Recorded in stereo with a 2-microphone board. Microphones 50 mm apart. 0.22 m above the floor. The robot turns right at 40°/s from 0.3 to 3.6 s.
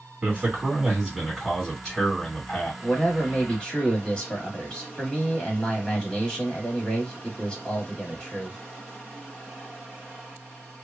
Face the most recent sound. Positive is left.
turn(degrees=20)  # may be behind; listen again after turning